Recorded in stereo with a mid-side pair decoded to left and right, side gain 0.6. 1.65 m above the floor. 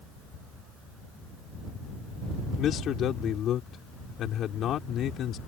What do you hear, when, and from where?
2.6 s a man speaking: 50° left